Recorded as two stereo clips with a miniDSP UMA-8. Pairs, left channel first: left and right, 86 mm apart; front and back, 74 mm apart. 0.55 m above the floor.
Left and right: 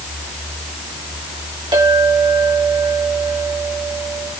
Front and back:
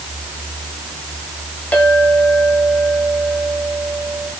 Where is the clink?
70° right, 2.5 m.